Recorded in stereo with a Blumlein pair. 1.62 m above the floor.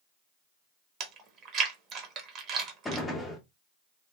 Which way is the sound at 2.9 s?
10° left.